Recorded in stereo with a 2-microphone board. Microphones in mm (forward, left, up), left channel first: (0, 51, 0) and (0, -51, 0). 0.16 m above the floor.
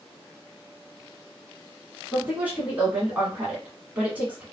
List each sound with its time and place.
2.1 s a woman speaking: 15° right (ahead or behind), 1.1 m